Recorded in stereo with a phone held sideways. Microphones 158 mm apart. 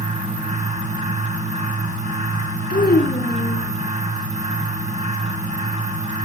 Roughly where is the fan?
Right.